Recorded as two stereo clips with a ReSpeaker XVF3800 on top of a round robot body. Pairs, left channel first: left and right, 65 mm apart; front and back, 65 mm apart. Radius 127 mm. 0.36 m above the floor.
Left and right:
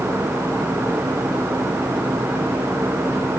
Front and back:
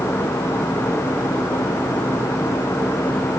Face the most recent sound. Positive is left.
No sound to turn to.